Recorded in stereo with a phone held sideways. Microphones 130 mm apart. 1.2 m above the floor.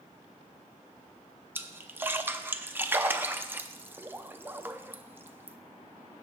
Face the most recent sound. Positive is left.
turn(degrees=-15)  # may be behind; listen again after turning